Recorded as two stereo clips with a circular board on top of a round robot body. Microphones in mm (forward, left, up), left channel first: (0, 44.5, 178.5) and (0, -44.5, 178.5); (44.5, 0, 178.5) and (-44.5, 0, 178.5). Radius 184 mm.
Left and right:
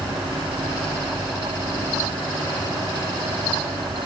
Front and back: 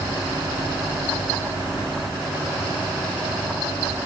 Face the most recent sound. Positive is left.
No sound to turn to.